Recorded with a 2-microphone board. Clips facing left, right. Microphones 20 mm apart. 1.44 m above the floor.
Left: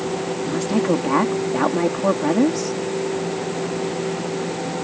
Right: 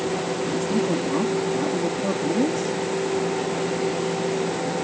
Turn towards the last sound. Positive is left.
turn(degrees=50)  # may be behind; listen again after turning